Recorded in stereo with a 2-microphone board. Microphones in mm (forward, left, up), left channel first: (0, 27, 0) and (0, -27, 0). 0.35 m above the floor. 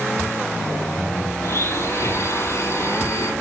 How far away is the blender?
About 5.5 m.